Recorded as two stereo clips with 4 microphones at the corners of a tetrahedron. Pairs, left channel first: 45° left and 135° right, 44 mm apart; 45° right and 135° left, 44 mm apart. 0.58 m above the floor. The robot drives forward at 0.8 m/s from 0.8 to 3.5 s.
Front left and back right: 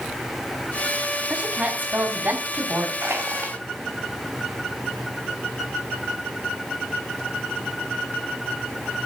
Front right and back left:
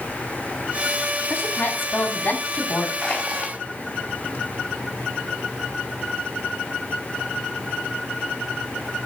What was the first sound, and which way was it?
A woman speaking, 80° right.